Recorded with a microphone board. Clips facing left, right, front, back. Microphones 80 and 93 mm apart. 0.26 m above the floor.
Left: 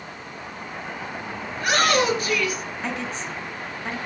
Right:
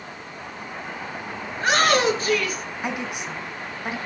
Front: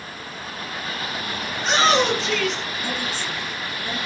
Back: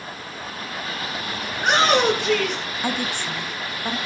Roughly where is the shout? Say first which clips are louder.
Right 1 dB, back 1 dB; behind right.